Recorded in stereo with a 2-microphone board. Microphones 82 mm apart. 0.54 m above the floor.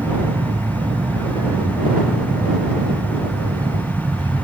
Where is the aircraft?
70° right (ahead or behind); by 4.4 s 65° right (ahead or behind).